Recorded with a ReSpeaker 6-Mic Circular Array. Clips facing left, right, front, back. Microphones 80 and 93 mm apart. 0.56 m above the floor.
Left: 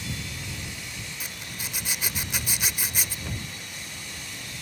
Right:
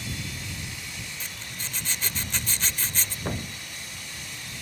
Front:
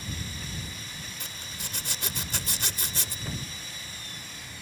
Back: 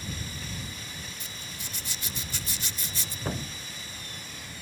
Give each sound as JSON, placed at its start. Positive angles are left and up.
{"t": 1.2, "sound": "a zipper", "azimuth_deg": 15}
{"t": 3.2, "sound": "a thud", "azimuth_deg": -135}